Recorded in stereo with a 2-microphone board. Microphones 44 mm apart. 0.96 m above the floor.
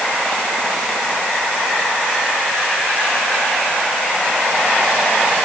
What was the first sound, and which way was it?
Only background noise.